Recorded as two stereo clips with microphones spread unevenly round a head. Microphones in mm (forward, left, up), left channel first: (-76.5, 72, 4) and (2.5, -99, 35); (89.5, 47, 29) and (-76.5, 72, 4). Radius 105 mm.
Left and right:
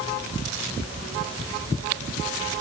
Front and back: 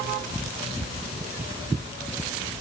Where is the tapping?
No tapping in this recording.